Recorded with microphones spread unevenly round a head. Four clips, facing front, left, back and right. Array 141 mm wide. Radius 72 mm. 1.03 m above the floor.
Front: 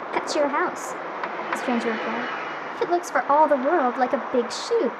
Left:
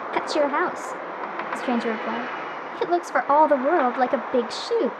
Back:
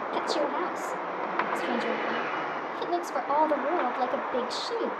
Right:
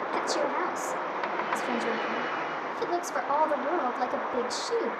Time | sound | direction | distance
0.1 | a woman speaking | 50° left | 0.9 m